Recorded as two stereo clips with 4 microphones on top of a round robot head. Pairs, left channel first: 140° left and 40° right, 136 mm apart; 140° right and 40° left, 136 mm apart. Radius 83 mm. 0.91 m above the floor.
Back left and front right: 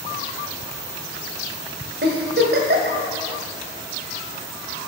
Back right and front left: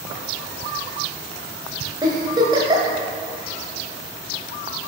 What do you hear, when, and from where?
2.0 s a giggle: 20° right, 1.2 m